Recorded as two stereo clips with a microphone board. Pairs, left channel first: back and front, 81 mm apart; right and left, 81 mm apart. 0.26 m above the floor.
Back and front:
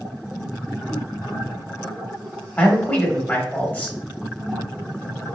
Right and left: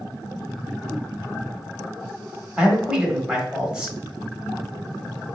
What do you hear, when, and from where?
2.6 s a man speaking: 150° left, 0.9 m